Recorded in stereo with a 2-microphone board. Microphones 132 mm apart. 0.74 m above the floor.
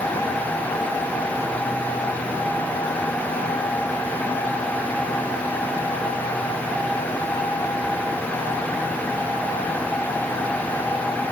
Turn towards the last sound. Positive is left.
No sound to turn to.